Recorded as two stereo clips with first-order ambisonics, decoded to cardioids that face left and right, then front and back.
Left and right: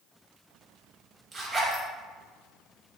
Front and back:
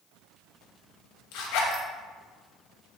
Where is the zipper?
15° right, 0.9 m.